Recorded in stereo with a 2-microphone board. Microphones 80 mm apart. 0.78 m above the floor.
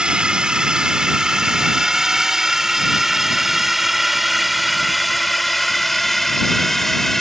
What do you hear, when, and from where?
0.0 s a drone: 10° right (ahead or behind); by 7.2 s 5° left (ahead or behind)